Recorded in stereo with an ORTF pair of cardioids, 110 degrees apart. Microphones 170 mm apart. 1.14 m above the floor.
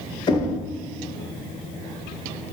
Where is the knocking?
30° left, 0.8 m.